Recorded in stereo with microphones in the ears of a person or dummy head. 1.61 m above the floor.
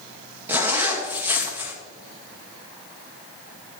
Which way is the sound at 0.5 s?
15° right (ahead or behind).